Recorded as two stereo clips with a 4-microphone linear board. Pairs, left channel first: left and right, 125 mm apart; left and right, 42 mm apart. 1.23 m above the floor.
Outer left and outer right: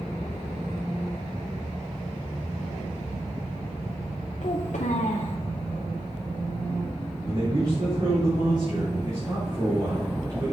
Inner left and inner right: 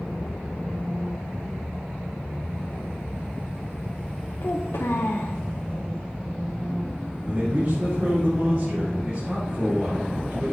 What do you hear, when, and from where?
4.4 s a child speaking: 80° left, 0.8 m
7.2 s a man speaking: 35° right (ahead or behind), 3 m